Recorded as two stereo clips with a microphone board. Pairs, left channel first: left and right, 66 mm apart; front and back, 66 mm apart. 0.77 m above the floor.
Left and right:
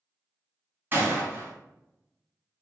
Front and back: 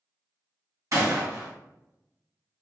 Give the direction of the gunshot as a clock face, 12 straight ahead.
5 o'clock.